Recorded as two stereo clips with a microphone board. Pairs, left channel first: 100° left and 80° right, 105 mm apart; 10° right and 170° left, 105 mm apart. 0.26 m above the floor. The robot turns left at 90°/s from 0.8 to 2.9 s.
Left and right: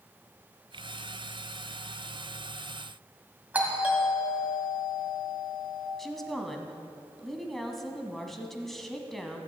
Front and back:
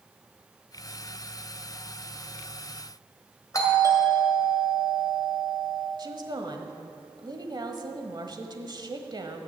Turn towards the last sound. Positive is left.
turn(degrees=-175)